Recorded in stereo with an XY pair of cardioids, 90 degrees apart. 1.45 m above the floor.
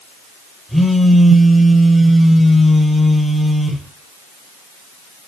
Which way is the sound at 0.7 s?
Straight ahead.